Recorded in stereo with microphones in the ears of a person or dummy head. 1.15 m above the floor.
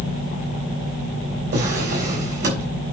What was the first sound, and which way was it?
A drawer, 55° right (ahead or behind).